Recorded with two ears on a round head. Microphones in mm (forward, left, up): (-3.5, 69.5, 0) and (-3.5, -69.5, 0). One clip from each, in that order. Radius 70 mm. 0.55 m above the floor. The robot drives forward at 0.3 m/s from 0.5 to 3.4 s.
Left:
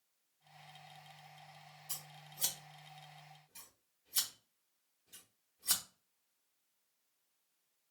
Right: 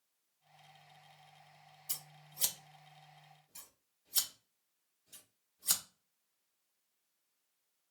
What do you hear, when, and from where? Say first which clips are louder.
1.9 s scissors: right 2 dB; 35° right (ahead or behind), 0.7 m; by 5.8 s 25° right (ahead or behind), 0.9 m